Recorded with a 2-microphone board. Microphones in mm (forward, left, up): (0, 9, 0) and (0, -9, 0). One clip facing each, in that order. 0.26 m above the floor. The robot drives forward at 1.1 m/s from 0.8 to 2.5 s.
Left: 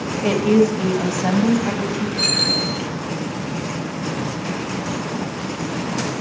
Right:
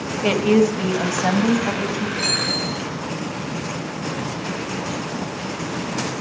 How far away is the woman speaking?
About 1.0 m.